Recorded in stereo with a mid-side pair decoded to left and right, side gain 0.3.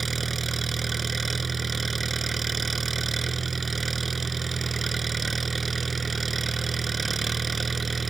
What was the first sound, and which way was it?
An engine running, 40° right.